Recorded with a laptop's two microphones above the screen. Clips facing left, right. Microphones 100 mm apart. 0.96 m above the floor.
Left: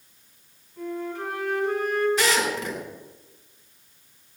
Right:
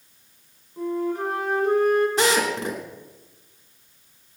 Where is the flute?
45° right (ahead or behind), 3 m.